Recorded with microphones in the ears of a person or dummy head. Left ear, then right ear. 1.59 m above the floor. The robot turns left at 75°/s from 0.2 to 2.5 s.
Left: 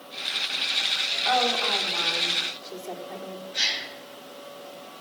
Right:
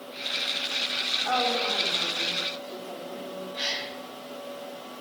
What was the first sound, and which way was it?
A woman speaking, 175° left.